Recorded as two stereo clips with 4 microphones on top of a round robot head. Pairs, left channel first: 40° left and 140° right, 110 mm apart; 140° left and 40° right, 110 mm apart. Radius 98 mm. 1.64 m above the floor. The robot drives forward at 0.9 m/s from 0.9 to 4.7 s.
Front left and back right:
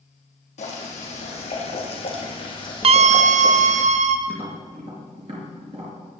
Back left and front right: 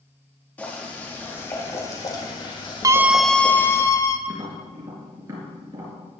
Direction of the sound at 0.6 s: 65° left.